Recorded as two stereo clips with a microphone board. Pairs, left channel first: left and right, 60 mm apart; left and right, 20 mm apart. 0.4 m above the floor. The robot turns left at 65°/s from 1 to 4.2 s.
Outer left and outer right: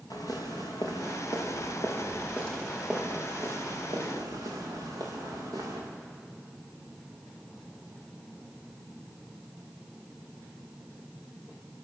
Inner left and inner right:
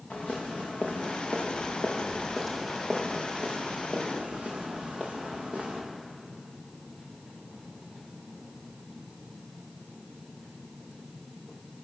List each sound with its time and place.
0.1 s footsteps: 85° left, 5 m; by 5.8 s 85° right, 7.5 m